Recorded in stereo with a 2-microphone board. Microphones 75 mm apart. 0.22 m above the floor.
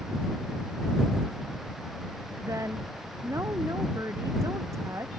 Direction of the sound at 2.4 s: 40° right (ahead or behind).